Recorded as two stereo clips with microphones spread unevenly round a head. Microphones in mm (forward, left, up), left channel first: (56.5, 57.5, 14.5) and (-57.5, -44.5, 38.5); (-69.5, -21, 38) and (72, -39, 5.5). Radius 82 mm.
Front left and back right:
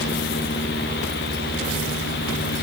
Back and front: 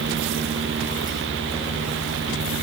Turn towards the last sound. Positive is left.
No sound to turn to.